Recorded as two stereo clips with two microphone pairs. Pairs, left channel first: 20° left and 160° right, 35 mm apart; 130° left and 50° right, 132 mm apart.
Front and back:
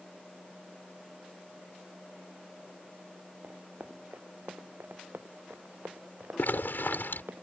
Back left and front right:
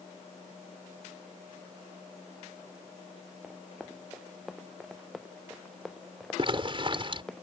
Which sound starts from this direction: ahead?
A zipper, at 6.4 s.